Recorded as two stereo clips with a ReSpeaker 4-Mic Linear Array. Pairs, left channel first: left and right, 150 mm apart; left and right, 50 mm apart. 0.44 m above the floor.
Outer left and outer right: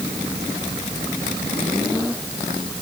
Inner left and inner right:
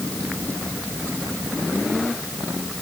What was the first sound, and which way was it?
Only background noise.